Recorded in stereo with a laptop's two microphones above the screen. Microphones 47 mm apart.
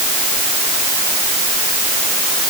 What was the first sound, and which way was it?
Only background noise.